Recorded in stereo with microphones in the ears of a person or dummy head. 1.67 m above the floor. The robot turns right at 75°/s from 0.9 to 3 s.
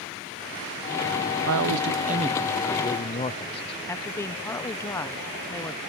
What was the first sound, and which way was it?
A man speaking, 85° right.